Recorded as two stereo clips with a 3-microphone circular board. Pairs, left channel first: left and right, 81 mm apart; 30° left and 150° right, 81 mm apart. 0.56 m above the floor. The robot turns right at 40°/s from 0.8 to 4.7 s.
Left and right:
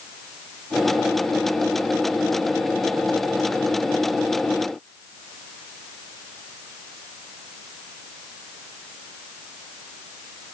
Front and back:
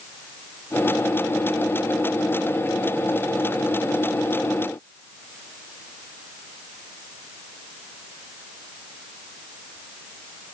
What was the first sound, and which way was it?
Only background noise.